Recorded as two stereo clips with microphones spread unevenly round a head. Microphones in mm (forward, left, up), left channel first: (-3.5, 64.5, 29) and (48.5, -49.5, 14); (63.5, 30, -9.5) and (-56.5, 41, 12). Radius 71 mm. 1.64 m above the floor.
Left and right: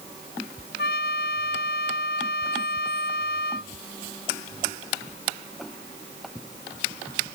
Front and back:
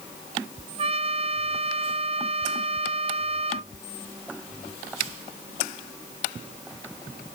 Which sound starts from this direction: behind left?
A trumpet, at 0.8 s.